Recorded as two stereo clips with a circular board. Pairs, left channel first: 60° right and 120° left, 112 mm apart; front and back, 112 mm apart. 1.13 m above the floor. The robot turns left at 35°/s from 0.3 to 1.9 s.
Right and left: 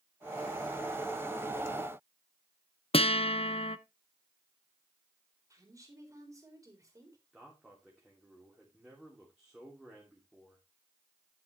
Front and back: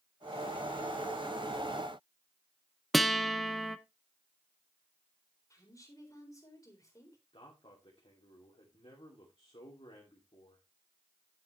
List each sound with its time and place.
2.9 s a guitar: 90° right, 0.7 m
5.5 s a woman speaking: 60° left, 4 m
7.3 s a man speaking: 35° left, 3 m